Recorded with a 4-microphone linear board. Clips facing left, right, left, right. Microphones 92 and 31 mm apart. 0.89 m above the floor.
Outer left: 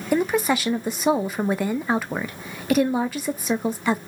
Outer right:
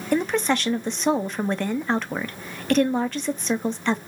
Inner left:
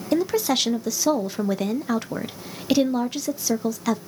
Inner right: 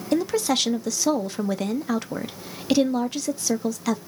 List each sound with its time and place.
0.1 s a woman speaking: 5° left (ahead or behind), 0.5 m